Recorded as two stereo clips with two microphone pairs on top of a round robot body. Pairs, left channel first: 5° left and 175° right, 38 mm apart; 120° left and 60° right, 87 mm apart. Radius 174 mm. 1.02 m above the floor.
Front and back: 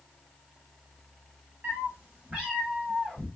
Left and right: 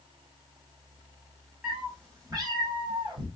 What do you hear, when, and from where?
1.6 s a cat meowing: 145° right, 1.5 m; by 3.3 s 85° right, 2 m